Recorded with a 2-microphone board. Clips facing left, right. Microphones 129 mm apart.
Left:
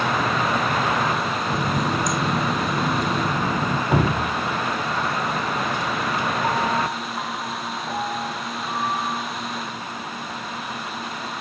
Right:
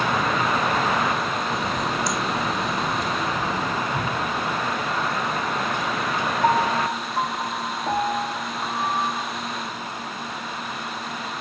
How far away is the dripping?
About 0.6 m.